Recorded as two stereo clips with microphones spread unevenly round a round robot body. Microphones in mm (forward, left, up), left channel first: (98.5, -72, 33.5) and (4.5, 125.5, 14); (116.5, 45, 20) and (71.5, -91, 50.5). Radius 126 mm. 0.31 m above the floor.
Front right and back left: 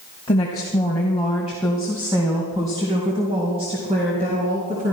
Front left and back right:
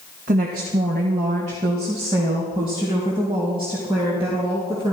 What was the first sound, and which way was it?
A woman speaking, 135° right.